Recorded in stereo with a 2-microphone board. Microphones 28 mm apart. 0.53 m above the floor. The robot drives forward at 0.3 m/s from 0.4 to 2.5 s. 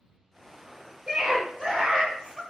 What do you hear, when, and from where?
1.1 s a scream: 25° right (ahead or behind), 1.4 m